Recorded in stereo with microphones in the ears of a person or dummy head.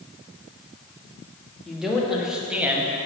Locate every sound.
1.6 s a man speaking: centre (ahead or behind), 1.9 m; by 2.9 s 10° right (ahead or behind), 1.2 m